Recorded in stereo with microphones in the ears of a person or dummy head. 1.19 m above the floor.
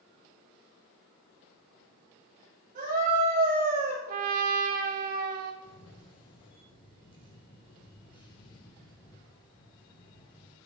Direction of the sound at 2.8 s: 40° right (ahead or behind).